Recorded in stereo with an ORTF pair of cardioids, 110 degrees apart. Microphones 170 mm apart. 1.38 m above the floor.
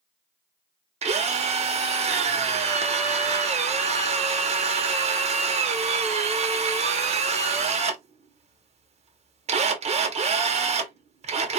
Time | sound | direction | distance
1.0 | a drill | 40° right | 0.9 m